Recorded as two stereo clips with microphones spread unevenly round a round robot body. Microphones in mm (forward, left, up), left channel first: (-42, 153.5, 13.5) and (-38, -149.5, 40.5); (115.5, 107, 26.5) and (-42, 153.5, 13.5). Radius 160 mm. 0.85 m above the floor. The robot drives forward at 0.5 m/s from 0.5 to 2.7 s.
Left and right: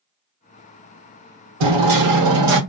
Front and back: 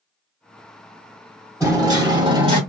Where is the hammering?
100° right, 1.1 m; by 2.6 s 125° right, 1.3 m.